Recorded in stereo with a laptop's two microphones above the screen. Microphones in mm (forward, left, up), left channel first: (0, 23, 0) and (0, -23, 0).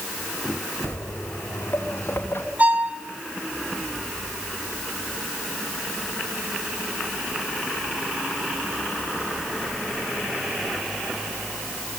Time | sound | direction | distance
0.8 | footsteps | 65° left (ahead or behind) | 5 m
2.6 | a violin | 35° right (ahead or behind) | 5.5 m